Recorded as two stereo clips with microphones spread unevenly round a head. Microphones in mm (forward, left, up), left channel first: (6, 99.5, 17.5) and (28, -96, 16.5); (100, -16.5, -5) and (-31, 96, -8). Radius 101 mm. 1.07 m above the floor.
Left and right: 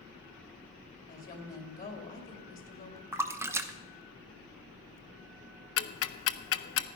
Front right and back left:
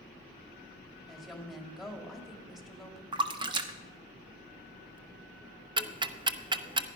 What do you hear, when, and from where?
1.1 s a woman speaking: 50° left, 2.5 m
3.1 s a splash: 160° right, 0.6 m
5.8 s ticking: 75° left, 0.7 m